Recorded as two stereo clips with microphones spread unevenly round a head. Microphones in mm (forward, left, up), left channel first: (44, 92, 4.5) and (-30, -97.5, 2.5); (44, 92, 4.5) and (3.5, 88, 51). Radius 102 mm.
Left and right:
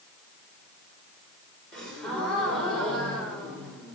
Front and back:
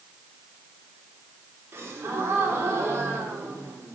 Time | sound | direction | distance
1.7 | a gasp | 155° left | 3 m